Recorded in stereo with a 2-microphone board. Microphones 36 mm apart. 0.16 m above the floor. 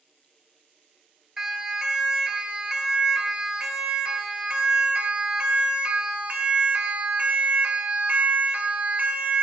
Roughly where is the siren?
Centre.